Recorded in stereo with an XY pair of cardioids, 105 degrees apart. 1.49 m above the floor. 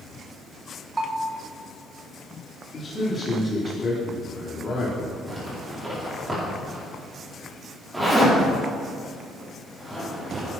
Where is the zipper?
15° right, 4.5 m.